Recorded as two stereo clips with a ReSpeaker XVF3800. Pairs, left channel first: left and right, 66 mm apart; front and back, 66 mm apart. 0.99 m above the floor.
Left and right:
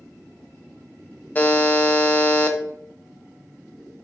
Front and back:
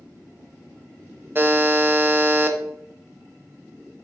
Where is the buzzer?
140° left, 0.9 m.